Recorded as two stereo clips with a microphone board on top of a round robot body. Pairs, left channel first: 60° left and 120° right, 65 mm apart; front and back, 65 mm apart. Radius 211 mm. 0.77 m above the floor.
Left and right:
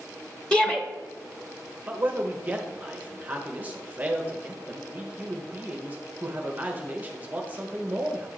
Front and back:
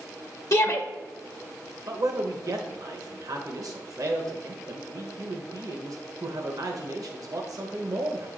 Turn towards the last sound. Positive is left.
turn(degrees=180)